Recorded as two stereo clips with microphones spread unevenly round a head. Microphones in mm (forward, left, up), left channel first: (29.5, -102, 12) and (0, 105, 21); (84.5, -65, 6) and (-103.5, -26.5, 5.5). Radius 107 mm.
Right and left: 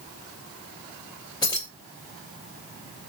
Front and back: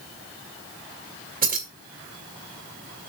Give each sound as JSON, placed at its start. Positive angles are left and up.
{"t": 1.4, "sound": "keys jangling", "azimuth_deg": -155, "distance_m": 1.8}